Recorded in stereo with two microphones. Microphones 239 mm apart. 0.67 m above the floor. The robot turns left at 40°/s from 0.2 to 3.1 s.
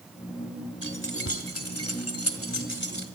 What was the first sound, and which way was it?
Keys jangling, 45° left (ahead or behind).